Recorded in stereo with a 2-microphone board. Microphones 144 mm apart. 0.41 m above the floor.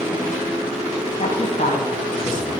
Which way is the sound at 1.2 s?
70° left (ahead or behind).